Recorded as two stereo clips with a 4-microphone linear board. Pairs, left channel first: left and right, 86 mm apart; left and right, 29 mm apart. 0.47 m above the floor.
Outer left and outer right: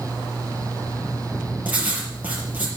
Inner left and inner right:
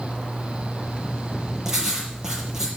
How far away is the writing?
About 5.5 m.